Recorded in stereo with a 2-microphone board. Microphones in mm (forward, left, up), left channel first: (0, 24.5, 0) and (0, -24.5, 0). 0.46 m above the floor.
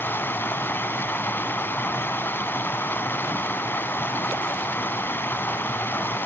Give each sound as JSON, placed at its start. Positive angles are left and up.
{"t": 0.0, "sound": "running water", "side_deg": 40, "distance_m": 1.0}